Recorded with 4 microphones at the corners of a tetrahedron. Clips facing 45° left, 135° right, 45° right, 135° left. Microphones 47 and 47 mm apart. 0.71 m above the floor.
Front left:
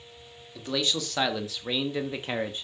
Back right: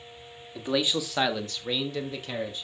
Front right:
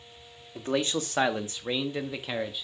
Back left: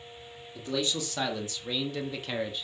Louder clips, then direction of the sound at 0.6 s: Back right 2 dB, front right 3 dB; 70° right.